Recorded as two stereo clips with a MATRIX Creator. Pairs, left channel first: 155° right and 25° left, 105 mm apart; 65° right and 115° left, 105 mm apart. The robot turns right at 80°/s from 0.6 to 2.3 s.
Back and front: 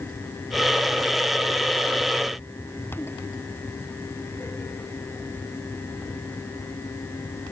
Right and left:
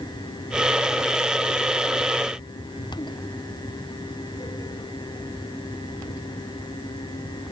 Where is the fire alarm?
No fire alarm in this recording.